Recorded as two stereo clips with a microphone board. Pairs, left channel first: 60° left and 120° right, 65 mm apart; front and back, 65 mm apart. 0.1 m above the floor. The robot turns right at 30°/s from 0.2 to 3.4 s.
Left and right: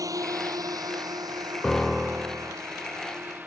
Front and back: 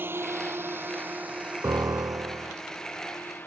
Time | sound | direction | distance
0.0 | a drone | 130° right | ?
1.6 | a piano | 145° left | ?